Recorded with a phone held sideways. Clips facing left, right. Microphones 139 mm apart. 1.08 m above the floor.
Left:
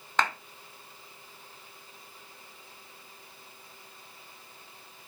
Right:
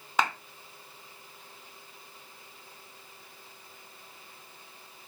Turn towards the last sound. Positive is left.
turn(degrees=-10)  # may be behind; listen again after turning